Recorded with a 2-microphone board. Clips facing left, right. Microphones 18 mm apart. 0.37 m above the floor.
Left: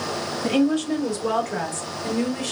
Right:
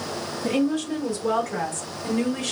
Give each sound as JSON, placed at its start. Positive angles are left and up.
{"t": 0.4, "sound": "a woman speaking", "side_deg": 35, "distance_m": 1.5}